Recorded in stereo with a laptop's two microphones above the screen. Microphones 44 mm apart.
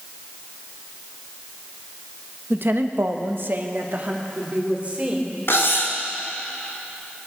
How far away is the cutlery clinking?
About 1.8 m.